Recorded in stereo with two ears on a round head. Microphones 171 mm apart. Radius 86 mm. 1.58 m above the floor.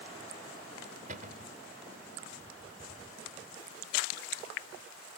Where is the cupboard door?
45° right (ahead or behind).